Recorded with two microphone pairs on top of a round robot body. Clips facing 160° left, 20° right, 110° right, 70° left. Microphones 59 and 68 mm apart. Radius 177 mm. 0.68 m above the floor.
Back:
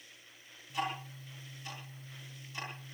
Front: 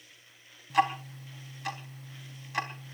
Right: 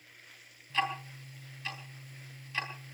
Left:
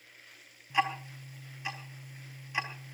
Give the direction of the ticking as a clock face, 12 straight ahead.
12 o'clock.